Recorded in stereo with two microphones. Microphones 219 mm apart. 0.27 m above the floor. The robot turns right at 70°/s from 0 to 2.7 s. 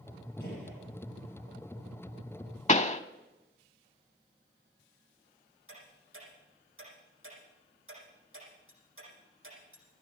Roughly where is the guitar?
No guitar in this recording.